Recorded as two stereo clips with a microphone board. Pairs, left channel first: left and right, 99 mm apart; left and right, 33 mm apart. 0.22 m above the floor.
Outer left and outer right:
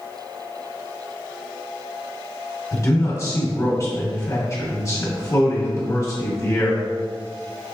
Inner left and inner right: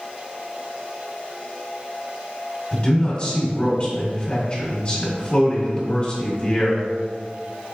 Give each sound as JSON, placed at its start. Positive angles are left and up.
{"t": 2.7, "sound": "a man speaking", "side_deg": 35, "distance_m": 1.6}